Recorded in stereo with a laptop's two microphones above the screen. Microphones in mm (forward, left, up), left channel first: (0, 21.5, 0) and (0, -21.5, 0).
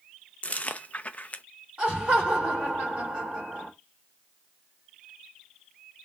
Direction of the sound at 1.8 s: 30° right (ahead or behind).